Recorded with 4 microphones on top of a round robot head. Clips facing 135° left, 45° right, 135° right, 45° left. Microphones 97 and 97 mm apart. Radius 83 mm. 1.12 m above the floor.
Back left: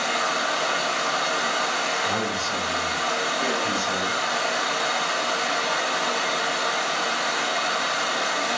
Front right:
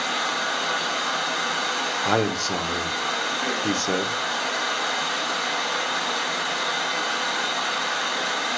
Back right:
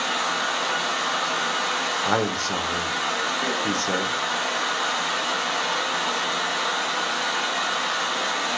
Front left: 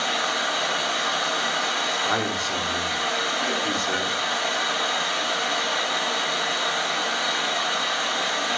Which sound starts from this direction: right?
A man speaking, at 2.0 s.